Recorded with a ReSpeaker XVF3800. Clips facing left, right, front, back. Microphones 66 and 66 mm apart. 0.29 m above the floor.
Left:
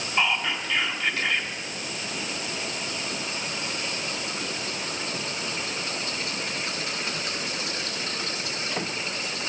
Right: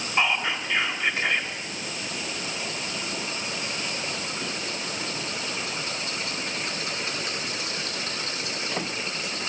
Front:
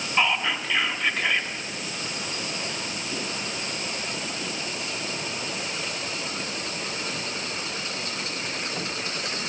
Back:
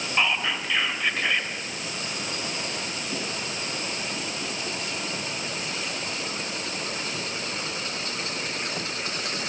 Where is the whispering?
85° right, 0.9 m.